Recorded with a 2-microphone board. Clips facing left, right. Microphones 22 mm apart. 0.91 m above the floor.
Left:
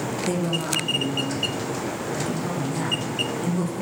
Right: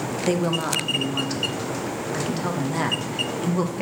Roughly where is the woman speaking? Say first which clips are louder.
Right 4 dB; right.